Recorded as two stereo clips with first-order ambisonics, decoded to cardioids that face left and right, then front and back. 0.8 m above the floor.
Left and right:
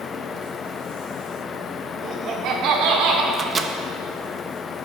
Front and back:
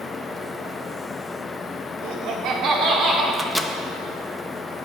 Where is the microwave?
85° right, 0.6 m.